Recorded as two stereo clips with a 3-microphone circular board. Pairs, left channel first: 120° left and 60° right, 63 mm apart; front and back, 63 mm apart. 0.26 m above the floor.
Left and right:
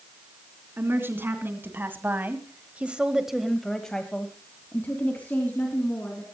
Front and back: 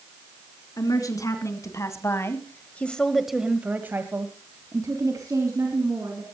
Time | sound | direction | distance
0.8 | a woman speaking | 10° right | 3.5 m